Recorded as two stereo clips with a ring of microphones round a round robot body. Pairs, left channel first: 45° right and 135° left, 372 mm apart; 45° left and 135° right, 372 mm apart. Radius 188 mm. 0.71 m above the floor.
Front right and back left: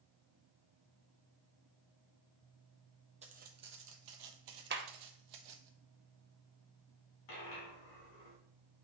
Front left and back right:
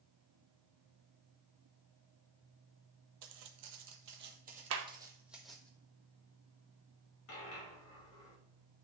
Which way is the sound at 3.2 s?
155° right.